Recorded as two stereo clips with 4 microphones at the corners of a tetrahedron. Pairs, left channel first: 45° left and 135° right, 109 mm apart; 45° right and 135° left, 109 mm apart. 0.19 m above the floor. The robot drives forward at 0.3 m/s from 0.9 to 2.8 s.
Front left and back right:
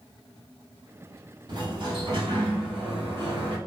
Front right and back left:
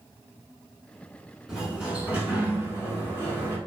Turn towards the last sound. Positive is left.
turn(degrees=-160)